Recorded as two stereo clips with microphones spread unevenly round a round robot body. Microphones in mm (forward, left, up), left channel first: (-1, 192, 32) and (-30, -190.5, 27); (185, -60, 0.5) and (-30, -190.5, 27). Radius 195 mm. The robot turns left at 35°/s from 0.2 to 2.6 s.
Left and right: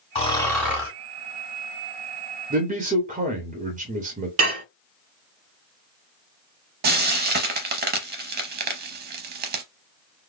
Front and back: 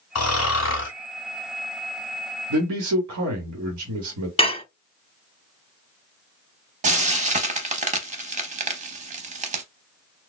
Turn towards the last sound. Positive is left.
turn(degrees=-140)